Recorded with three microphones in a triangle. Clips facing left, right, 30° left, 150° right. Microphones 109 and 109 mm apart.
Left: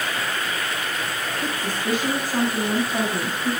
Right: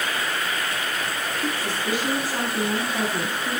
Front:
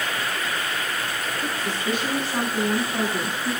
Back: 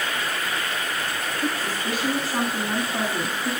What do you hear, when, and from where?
1.4 s a woman speaking: 130° left, 8.5 m